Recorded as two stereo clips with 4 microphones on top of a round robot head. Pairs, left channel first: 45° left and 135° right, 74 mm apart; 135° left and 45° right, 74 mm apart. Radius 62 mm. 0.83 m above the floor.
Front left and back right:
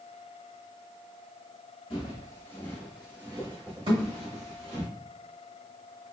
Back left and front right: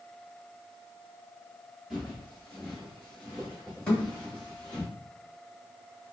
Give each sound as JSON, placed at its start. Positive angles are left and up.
{"t": 1.9, "sound": "footsteps", "azimuth_deg": 50, "distance_m": 1.0}
{"t": 3.9, "sound": "a thud", "azimuth_deg": -145, "distance_m": 1.8}